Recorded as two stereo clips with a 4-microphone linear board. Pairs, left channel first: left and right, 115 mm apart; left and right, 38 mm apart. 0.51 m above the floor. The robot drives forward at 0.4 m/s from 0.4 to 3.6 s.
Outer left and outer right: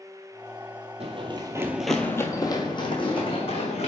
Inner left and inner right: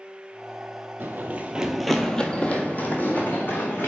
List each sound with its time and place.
1.0 s running footsteps: 55° right (ahead or behind), 0.8 m; by 3.9 s 55° left (ahead or behind), 1.8 m